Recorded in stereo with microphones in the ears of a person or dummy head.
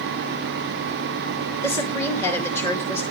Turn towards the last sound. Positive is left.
turn(degrees=15)  # may be behind; listen again after turning